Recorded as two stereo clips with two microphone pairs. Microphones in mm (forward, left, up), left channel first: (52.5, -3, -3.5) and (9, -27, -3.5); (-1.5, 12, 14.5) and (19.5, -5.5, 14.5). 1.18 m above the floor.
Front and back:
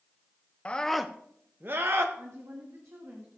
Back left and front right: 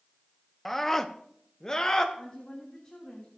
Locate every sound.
0.7 s a scream: 60° left, 0.6 m; by 2.0 s 155° right, 1.0 m
2.1 s a woman speaking: 155° right, 2.5 m